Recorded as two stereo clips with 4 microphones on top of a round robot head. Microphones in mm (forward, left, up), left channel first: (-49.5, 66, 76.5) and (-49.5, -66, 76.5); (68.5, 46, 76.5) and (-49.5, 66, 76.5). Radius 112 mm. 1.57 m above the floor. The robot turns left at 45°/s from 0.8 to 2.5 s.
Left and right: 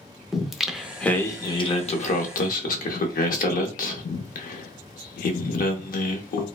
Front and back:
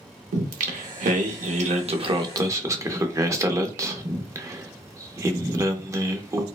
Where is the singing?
Straight behind, 0.6 m; by 6.5 s 105° left, 0.6 m.